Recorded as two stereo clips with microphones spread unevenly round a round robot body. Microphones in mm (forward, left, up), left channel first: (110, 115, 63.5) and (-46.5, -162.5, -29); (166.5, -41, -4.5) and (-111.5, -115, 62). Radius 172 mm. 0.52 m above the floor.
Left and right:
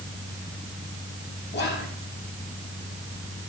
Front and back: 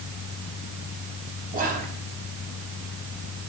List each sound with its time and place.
1.5 s whispering: 125° left, 1.0 m